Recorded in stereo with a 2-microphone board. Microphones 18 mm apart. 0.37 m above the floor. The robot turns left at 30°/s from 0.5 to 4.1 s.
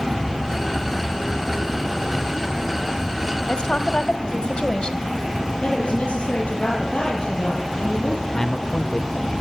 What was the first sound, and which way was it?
A woman speaking, 60° left (ahead or behind).